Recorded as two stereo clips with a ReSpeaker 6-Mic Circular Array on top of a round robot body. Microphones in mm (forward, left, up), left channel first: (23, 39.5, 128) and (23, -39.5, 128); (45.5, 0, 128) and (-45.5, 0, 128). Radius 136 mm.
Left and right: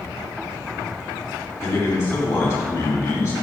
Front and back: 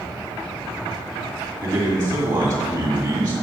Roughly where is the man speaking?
Behind left.